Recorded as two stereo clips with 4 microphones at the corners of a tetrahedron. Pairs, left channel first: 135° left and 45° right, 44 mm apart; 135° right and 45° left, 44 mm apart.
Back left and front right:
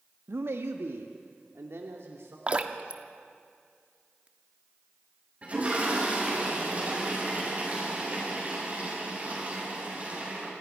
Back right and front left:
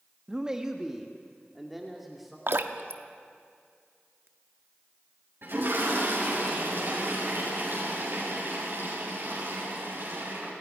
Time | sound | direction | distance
0.3 | a man speaking | 30° right | 1.1 m
2.5 | dripping | 15° left | 1.0 m
5.4 | a toilet flushing | 10° left | 8 m